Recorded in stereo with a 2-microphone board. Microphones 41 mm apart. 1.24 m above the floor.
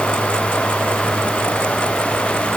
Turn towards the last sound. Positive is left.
No sound to turn to.